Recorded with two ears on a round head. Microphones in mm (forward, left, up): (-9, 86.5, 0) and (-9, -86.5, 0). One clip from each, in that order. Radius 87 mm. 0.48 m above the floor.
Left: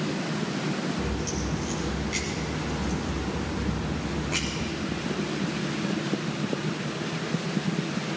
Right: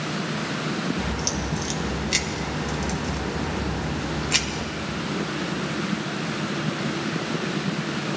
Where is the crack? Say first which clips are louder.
Right 4 dB; 85° right, 1.3 m.